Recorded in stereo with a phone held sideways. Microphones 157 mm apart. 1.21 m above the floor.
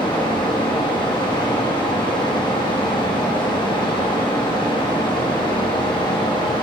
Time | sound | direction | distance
0.0 | a fan | 30° left (ahead or behind) | 1.4 m